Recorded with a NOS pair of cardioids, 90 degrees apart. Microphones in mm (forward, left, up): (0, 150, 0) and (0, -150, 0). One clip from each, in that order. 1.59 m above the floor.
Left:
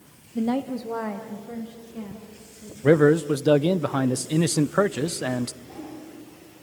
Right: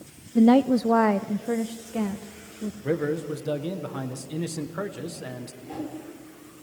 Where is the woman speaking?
25° right, 0.6 m; by 2.7 s 70° right, 2 m.